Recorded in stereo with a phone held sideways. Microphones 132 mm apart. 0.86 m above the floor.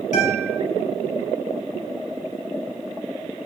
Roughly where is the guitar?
Left.